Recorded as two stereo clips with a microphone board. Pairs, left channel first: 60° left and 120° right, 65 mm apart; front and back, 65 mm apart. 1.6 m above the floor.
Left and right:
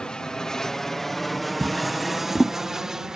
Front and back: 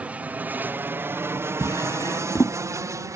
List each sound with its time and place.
0.0 s an aircraft: 130° left; by 3.2 s 160° left
1.6 s a drawer: 25° right